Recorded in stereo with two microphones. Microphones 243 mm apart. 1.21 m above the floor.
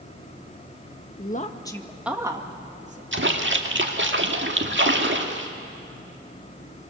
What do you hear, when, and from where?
1.2 s a woman speaking: 40° left (ahead or behind), 1.3 m; by 3.0 s 30° right (ahead or behind), 2 m
3.1 s a splash: 50° right (ahead or behind), 1.7 m